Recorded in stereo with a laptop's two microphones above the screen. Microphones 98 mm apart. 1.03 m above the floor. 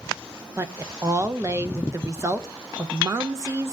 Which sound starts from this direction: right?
A woman speaking, at 0.6 s.